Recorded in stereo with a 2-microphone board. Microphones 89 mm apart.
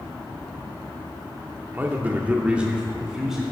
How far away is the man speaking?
About 1.1 m.